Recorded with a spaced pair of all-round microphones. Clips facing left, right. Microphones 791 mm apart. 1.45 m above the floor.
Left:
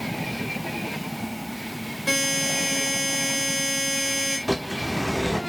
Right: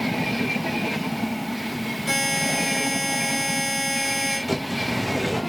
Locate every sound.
2.1 s a buzzer: 75° left (ahead or behind), 6.5 m
4.5 s a bird: 75° left (ahead or behind), 3 m